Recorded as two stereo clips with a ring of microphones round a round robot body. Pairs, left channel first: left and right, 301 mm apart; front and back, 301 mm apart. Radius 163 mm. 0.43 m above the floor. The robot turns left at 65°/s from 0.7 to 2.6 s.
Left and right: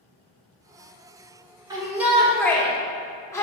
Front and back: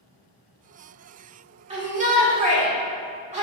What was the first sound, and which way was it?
A shout, 145° right.